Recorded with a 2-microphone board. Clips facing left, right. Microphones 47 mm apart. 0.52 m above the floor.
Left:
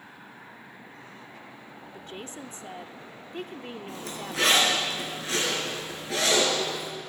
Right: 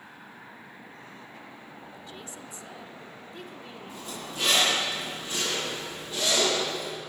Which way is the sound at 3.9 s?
85° left.